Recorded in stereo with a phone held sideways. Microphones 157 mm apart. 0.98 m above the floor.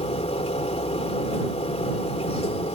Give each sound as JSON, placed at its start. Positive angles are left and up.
{"t": 0.0, "sound": "a machine running", "side_deg": 40}